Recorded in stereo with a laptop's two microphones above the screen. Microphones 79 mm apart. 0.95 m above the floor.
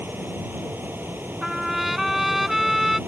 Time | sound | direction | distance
0.0 | a fan | 25° right (ahead or behind) | ?
1.4 | a trumpet | 5° right (ahead or behind) | ?